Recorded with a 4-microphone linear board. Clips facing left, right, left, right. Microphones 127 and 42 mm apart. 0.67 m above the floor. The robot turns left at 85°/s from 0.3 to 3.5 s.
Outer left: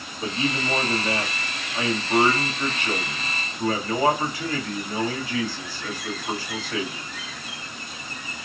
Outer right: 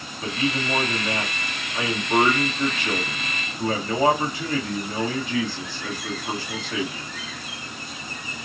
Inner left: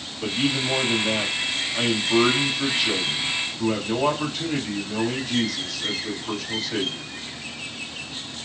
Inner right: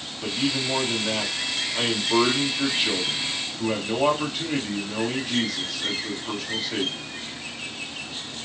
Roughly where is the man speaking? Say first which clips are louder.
Outer right 1 dB, inner left 2 dB; behind left.